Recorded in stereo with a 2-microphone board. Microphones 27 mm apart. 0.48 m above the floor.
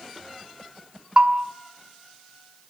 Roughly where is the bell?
Right.